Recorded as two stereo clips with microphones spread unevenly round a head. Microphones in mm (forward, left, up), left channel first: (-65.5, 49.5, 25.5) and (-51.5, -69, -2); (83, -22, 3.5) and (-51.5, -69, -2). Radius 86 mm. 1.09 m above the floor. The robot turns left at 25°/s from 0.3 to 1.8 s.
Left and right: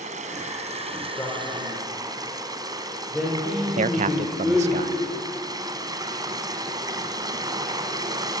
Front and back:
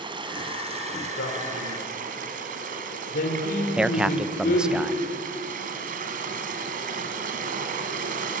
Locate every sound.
0.0 s running water: 110° right, 2.5 m; by 8.4 s 145° right, 2.5 m
1.2 s a man speaking: 20° left, 4 m; by 4.8 s 5° left, 4 m
3.8 s a man speaking: 75° right, 0.6 m